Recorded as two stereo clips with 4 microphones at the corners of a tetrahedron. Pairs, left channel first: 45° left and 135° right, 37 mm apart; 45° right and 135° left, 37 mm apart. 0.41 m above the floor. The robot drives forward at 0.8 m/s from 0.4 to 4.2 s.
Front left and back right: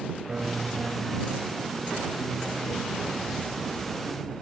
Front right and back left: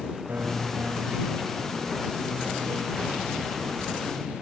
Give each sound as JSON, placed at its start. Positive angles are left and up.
{"t": 0.3, "sound": "a piano", "azimuth_deg": 155}